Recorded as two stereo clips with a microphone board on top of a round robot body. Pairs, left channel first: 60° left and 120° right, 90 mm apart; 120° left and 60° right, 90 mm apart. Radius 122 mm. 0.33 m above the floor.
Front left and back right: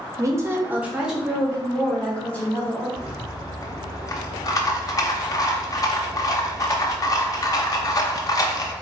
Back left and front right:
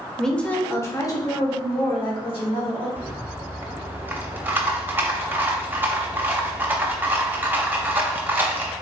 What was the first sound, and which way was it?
A woman speaking, 155° right.